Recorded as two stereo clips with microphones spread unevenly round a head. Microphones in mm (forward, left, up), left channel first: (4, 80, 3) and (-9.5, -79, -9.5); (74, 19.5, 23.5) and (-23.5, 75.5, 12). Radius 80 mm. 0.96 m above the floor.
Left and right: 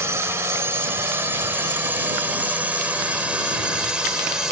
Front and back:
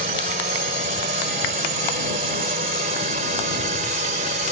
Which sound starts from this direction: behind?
A drone, at 0.0 s.